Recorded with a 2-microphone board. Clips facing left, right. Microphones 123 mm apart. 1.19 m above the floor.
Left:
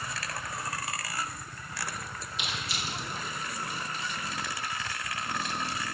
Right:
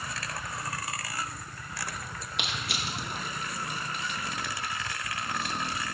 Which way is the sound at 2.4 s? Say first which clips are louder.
Right 2 dB; 65° right (ahead or behind).